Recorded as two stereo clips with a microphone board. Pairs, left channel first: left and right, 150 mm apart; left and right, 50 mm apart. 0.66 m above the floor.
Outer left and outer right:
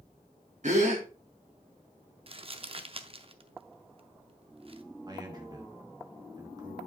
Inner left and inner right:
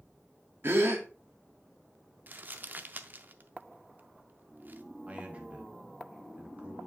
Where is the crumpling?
40° right (ahead or behind), 0.5 m.